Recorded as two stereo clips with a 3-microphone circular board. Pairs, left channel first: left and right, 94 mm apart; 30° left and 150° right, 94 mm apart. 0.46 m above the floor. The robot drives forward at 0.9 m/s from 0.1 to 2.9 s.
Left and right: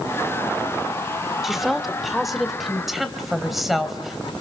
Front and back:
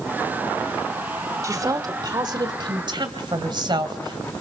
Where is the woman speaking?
175° right, 1.1 m; by 4.3 s straight behind, 2 m.